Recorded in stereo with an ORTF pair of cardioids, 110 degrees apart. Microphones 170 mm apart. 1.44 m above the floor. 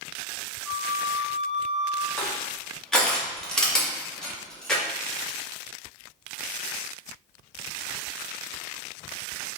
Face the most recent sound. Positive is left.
turn(degrees=5)